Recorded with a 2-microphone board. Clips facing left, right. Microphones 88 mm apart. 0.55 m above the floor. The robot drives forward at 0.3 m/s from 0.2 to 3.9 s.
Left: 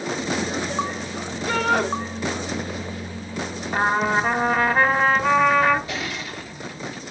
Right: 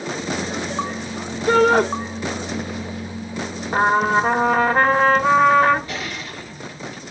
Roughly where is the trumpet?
Right.